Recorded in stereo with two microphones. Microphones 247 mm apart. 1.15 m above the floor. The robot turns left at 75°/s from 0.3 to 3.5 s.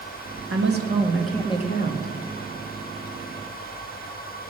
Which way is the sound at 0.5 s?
120° right.